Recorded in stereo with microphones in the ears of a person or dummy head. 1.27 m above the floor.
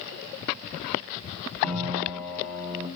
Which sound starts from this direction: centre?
A piano, at 1.6 s.